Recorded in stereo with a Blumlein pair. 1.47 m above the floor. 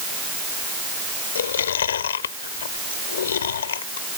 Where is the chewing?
65° left.